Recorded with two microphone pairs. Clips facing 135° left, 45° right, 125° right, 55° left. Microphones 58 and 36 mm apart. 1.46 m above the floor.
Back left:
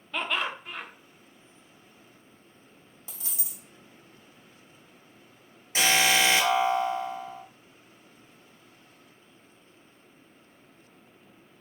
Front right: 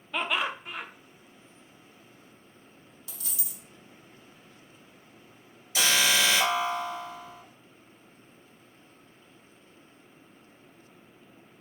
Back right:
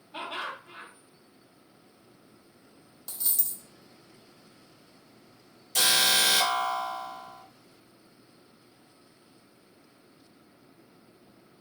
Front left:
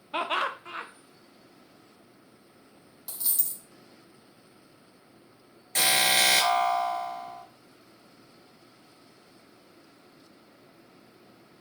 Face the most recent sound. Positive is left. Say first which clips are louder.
# back left 2 dB, front left 1 dB
turn(degrees=95)